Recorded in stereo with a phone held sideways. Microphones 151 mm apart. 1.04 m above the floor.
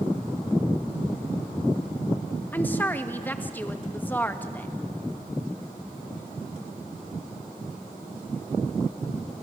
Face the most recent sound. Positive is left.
turn(degrees=10)  # may be behind; listen again after turning